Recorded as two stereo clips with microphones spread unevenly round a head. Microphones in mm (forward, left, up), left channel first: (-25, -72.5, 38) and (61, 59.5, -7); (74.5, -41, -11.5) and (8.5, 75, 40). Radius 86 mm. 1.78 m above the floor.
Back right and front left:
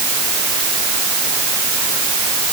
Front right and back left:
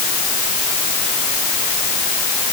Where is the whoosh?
No whoosh in this recording.